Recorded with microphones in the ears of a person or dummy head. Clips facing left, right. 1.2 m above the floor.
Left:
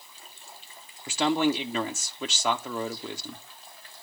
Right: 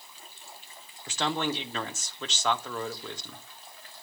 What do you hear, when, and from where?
1.1 s a man speaking: 15° left (ahead or behind), 0.8 m